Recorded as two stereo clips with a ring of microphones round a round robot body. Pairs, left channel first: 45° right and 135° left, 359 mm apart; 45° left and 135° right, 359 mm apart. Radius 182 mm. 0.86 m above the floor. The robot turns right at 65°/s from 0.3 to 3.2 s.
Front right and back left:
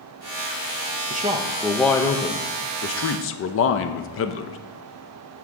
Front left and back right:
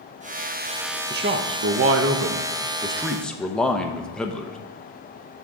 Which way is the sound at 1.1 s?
Straight behind.